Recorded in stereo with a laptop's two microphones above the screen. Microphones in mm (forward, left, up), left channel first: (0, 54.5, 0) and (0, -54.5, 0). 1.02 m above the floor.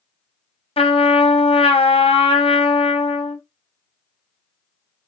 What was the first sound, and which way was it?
A trumpet, 55° left (ahead or behind).